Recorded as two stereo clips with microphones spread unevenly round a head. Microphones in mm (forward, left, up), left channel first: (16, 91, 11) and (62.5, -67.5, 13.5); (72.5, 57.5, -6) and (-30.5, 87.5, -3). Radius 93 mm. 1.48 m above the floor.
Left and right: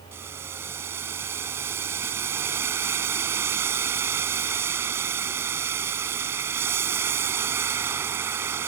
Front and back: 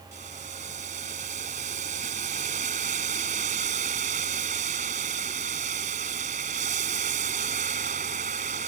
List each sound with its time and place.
0.1 s boiling: 150° right